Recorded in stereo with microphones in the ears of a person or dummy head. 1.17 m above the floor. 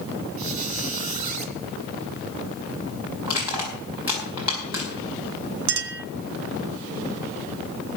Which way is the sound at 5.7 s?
65° right (ahead or behind).